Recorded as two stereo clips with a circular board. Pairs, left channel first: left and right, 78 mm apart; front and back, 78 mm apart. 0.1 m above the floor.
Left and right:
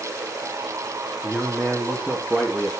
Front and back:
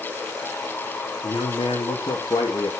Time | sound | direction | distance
1.2 | a man speaking | 15° right | 4.5 m